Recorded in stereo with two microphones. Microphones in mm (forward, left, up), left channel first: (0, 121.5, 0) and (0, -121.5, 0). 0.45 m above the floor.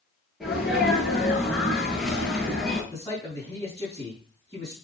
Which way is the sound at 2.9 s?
15° left (ahead or behind).